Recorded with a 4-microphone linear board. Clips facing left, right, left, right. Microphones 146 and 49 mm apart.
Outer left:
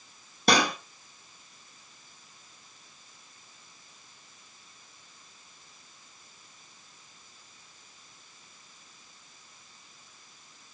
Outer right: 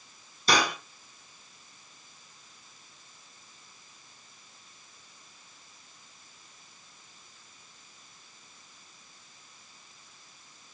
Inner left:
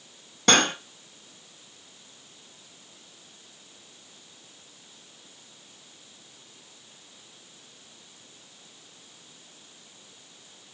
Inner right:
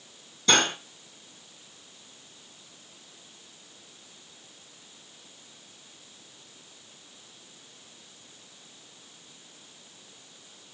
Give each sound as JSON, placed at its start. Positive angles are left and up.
{"t": 0.5, "sound": "cutlery clinking", "side_deg": 65, "distance_m": 2.5}